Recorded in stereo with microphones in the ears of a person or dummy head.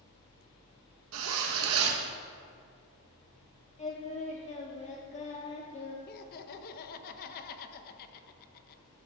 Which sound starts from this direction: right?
A zipper, at 1.1 s.